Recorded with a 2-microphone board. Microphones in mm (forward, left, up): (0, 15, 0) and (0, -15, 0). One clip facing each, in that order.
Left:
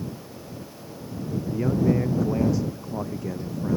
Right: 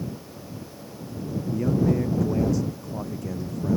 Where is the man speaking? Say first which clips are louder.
Even; 15° left (ahead or behind).